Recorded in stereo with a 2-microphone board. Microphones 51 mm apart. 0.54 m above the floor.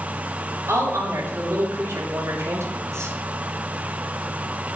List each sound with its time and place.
0.7 s a woman speaking: 80° right, 7.5 m